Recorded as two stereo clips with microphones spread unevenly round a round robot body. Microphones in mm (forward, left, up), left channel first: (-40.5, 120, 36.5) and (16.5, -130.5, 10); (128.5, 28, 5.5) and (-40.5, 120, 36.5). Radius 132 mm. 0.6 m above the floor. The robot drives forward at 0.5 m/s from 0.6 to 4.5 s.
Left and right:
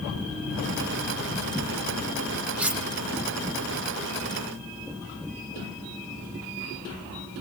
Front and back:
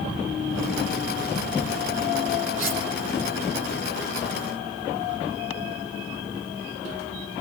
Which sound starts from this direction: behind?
Cutlery clinking, at 2.6 s.